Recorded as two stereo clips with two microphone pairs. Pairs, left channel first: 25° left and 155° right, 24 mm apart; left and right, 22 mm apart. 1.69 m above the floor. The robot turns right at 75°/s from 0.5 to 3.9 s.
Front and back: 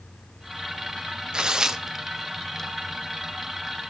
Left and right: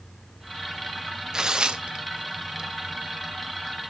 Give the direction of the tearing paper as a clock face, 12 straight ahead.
5 o'clock.